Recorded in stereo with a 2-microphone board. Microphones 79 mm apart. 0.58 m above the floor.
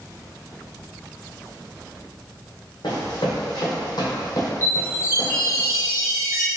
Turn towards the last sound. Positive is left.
turn(degrees=30)  # may be behind; listen again after turning